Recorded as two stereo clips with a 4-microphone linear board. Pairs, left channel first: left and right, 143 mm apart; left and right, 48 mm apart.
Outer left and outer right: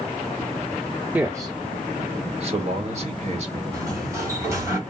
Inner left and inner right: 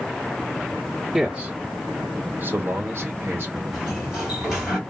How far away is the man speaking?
About 0.7 m.